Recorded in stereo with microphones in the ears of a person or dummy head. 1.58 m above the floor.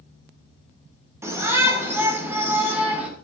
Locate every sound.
1.2 s a shout: 15° right (ahead or behind), 6.5 m; by 3.1 s 10° right (ahead or behind), 6 m